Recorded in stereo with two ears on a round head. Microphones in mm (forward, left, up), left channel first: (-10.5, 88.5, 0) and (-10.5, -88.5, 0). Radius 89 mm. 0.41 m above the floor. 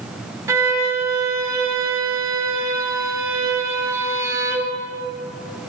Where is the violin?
15° right (ahead or behind), 0.7 m.